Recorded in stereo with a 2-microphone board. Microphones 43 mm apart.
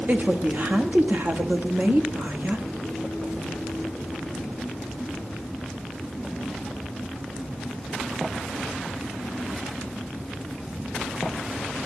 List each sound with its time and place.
0.1 s a woman speaking: 45° right (ahead or behind), 1.4 m